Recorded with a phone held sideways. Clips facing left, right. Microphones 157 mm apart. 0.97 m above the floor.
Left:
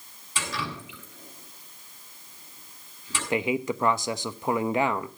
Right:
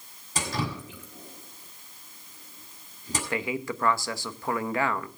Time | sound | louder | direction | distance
0.3 | dripping | right 3 dB | 40° right (ahead or behind) | 5.5 m
3.3 | a man speaking | left 6 dB | 20° left (ahead or behind) | 0.8 m